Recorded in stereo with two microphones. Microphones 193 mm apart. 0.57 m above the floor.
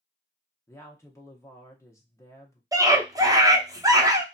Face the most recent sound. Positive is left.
turn(degrees=-20)  # may be behind; listen again after turning